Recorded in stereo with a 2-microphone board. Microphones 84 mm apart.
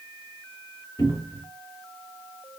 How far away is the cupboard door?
About 1.7 m.